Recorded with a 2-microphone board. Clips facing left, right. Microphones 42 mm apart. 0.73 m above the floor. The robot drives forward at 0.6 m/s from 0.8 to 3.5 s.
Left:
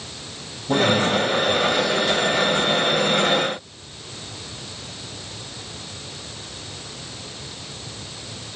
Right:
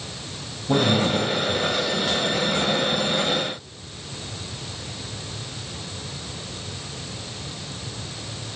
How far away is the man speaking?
About 5.5 m.